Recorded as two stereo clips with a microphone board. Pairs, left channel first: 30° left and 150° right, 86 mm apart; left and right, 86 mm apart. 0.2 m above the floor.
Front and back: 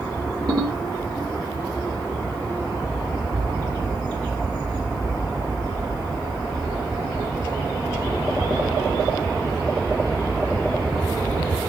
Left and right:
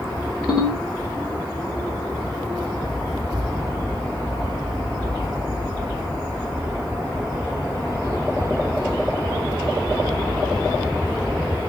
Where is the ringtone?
175° right, 2 m.